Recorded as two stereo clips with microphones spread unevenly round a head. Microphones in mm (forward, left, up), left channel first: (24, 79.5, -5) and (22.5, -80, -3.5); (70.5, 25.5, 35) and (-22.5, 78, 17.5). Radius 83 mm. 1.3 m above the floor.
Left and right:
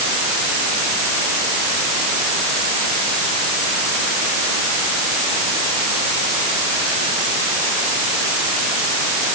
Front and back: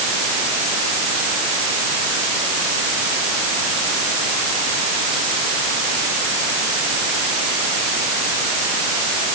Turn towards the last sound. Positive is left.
No sound to turn to.